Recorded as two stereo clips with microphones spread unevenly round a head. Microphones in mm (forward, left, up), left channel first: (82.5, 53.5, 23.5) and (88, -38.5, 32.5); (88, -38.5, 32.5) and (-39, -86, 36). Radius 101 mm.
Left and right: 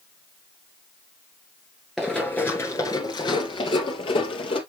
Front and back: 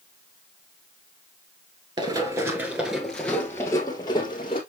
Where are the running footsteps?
165° right, 1.2 m; by 4.6 s 85° left, 2 m.